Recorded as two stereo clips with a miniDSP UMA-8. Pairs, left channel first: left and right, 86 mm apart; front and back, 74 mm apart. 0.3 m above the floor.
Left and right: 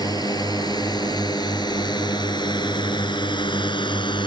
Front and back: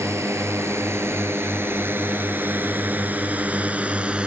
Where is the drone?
130° left; by 4.3 s 105° left.